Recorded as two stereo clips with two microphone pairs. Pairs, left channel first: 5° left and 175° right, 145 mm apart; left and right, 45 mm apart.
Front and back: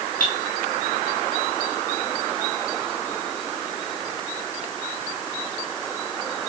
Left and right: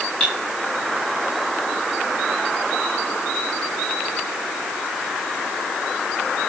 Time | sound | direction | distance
0.2 | cutlery clinking | 20° left | 6 m